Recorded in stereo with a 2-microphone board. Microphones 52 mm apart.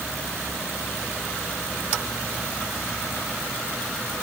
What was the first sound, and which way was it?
Only background noise.